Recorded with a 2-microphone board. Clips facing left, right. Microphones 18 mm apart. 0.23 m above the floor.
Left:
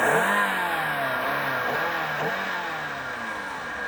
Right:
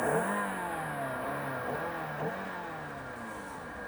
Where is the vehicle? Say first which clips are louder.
Left 9 dB; 80° left; by 3.9 s 75° left (ahead or behind).